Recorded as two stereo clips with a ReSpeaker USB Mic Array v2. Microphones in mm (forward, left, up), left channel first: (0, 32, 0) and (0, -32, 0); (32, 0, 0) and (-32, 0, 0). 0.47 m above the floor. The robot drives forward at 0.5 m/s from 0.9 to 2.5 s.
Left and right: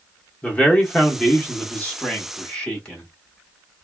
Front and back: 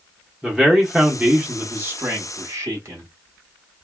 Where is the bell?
No bell in this recording.